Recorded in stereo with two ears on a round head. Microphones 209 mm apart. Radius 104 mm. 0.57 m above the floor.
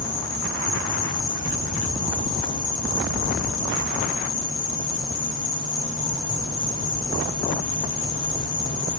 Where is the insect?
85° left, 4.5 m.